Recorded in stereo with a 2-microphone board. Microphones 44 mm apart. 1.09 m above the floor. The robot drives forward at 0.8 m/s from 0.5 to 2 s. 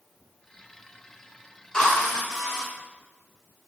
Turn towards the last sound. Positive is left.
turn(degrees=15)  # may be behind; listen again after turning